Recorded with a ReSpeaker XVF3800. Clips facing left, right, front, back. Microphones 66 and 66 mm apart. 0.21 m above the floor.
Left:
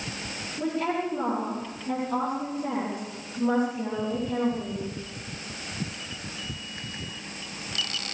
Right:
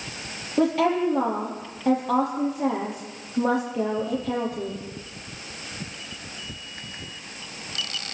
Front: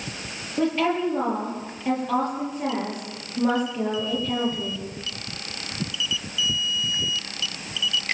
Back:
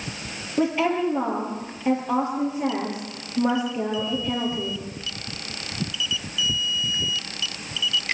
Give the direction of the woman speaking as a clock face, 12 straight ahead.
3 o'clock.